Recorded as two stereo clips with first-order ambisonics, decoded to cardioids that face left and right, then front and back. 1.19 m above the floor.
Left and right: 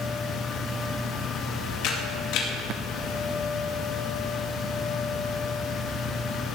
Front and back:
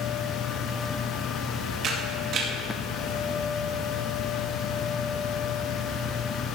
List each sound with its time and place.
1.8 s a camera shutter: 130° left, 2.0 m